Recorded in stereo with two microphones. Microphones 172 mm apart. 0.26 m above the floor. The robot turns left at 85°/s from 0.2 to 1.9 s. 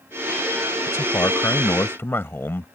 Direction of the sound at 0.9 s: 15° left (ahead or behind).